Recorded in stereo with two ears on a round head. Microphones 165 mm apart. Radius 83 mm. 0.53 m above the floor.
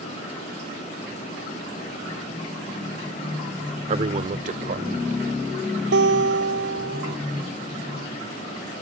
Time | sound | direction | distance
3.9 | a man speaking | 35° right (ahead or behind) | ?
5.9 | a guitar | 65° right (ahead or behind) | ?